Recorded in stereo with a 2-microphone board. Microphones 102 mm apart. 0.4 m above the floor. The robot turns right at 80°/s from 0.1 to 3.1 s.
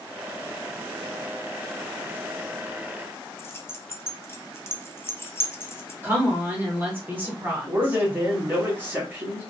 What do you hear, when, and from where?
3.4 s keys jangling: 25° left (ahead or behind), 0.5 m
6.0 s a woman speaking: 20° right (ahead or behind), 1.2 m
7.6 s a man speaking: 25° right (ahead or behind), 1.8 m